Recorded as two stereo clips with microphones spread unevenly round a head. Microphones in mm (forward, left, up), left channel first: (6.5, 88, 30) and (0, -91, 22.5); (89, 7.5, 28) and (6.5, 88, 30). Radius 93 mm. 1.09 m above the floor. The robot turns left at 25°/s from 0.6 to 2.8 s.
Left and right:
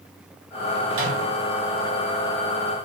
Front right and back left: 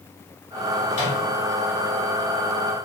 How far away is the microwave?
About 1.6 m.